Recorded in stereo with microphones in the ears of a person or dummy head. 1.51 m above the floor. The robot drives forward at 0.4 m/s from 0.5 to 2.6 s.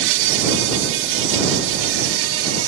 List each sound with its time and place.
0.0 s an insect: 65° right (ahead or behind); by 2.7 s 70° right (ahead or behind)